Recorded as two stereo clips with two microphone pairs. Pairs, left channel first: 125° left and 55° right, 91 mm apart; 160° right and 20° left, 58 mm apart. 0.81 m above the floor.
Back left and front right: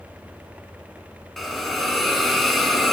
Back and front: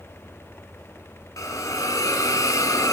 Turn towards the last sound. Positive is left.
turn(degrees=-145)